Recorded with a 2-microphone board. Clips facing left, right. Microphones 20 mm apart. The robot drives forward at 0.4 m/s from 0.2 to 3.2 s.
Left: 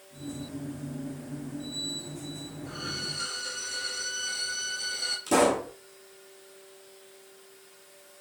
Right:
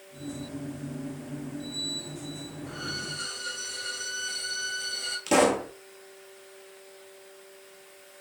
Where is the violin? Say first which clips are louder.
Even; 20° left (ahead or behind), 2.5 m.